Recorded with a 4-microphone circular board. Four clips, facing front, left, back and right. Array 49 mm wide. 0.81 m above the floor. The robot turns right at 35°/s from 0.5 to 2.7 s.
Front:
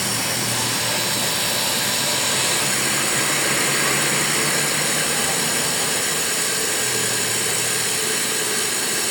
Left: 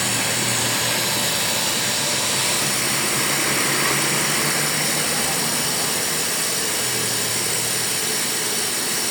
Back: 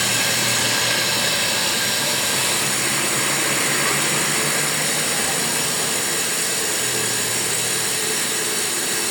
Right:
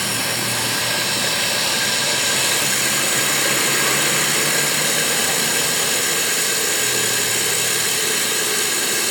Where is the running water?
165° right, 1.0 m; by 9.1 s 85° right, 1.0 m.